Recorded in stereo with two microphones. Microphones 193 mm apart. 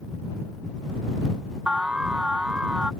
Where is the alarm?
5° right (ahead or behind).